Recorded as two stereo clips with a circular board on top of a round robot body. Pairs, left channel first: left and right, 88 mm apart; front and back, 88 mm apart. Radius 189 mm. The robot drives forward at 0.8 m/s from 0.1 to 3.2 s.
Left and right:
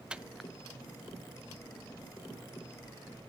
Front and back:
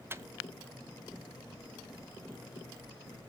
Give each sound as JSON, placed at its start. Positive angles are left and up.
{"t": 0.1, "sound": "a microwave", "azimuth_deg": -155, "distance_m": 0.7}